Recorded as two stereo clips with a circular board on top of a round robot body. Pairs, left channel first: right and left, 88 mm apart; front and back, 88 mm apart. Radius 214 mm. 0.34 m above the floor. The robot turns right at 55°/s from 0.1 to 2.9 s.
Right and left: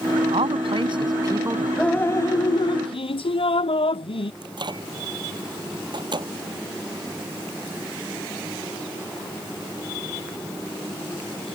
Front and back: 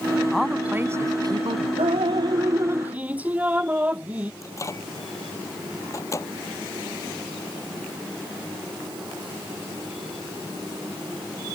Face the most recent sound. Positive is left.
turn(degrees=55)